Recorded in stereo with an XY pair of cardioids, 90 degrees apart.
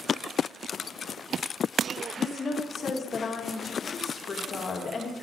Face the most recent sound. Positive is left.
turn(degrees=50)